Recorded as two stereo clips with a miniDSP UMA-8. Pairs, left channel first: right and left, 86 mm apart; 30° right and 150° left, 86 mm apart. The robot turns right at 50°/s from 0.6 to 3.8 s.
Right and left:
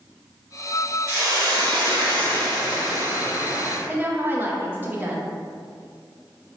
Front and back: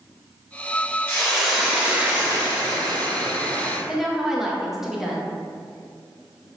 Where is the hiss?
45° left, 1.2 m; by 3.8 s straight behind, 1.2 m.